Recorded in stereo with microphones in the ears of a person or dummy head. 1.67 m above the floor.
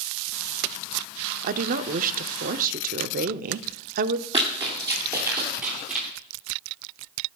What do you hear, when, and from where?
1.4 s a woman speaking: 45° right (ahead or behind), 0.6 m
4.3 s running footsteps: 30° right (ahead or behind), 3 m; by 6.1 s 5° right (ahead or behind), 3 m